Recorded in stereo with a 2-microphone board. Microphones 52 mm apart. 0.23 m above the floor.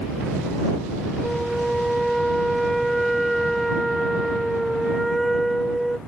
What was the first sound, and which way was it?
A flute, centre (ahead or behind).